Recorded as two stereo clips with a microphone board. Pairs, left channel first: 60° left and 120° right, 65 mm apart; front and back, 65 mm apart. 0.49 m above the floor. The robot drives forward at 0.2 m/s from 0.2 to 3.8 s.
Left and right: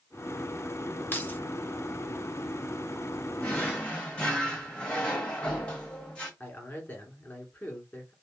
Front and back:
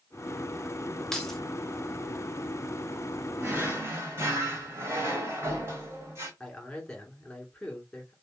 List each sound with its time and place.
1.1 s keys jangling: 70° left, 0.7 m; by 1.4 s 80° left, 0.7 m
3.4 s a drawer: 130° left, 1.0 m; by 6.3 s 135° left, 1.1 m
6.4 s a man speaking: 65° left, 1.2 m